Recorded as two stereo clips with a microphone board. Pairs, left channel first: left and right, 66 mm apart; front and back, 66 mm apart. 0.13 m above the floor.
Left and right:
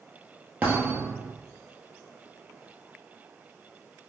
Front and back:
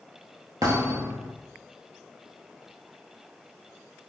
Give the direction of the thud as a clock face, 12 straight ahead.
5 o'clock.